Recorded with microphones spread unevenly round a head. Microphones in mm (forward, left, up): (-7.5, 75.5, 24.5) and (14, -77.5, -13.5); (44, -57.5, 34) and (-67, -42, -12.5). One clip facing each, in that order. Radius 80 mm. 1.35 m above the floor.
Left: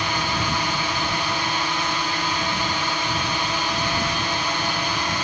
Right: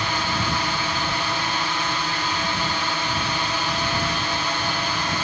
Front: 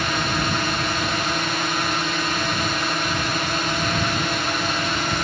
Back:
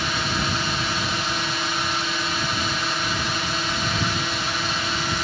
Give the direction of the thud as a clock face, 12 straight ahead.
I don't hear a thud.